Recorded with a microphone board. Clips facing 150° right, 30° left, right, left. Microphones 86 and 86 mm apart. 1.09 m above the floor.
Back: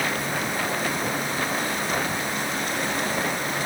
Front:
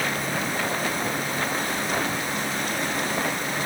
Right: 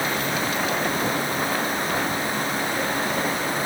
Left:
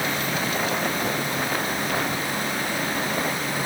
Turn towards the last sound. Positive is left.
No sound to turn to.